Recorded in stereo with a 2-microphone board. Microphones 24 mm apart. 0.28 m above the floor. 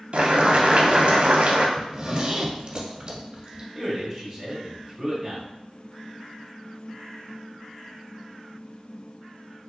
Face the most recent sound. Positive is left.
turn(degrees=0)  # may be behind; listen again after turning